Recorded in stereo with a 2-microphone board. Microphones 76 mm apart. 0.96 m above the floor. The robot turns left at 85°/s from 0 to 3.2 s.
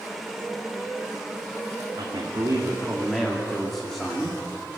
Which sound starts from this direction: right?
A man speaking, at 2.0 s.